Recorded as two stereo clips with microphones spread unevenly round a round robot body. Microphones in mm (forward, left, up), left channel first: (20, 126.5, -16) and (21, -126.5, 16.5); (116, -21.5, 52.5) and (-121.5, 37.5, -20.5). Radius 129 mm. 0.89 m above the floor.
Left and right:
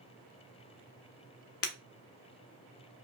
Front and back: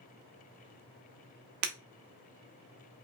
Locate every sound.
1.6 s breaking glass: 135° left, 1.0 m